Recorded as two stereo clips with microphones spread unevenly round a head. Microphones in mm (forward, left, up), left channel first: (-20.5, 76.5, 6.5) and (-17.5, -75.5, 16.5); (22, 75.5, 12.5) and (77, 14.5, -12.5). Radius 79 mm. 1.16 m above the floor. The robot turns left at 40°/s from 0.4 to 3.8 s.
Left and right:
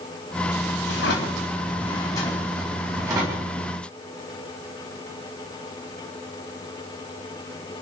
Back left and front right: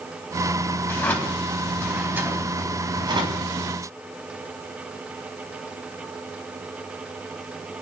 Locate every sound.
0.9 s a drawer: 70° left, 3.5 m; by 3.5 s 35° right, 3.5 m